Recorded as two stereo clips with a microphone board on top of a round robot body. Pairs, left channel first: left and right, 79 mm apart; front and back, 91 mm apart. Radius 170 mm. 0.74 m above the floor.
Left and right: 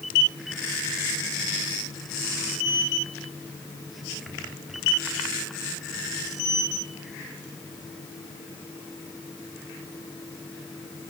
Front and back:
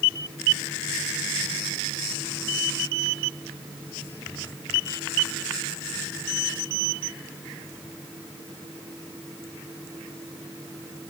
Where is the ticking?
No ticking in this recording.